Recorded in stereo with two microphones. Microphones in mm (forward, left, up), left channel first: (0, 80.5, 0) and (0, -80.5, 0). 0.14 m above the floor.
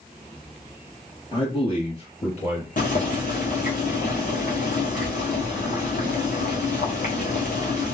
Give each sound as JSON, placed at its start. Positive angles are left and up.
{"t": 1.3, "sound": "a man speaking", "side_deg": 30, "distance_m": 3.0}
{"t": 2.8, "sound": "boiling", "side_deg": 55, "distance_m": 2.0}